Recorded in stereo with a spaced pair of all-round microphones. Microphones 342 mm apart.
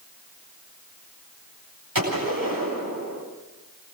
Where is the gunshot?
70° right (ahead or behind), 9 m.